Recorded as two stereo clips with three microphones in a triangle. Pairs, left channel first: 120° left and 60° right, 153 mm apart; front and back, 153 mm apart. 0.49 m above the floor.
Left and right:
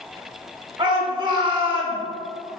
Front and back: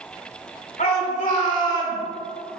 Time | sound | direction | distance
0.8 | a shout | 5° right | 3 m